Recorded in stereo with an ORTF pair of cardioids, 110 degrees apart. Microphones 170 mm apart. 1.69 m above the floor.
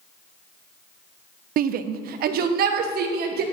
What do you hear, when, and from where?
1.6 s a shout: 60° right, 0.5 m; by 3.4 s 65° right, 1.8 m